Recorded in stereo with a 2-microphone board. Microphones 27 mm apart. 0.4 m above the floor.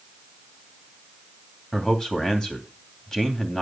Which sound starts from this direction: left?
A man speaking, at 1.7 s.